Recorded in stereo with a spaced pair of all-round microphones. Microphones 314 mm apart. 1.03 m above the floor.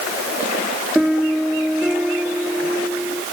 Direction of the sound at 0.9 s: Centre (ahead or behind).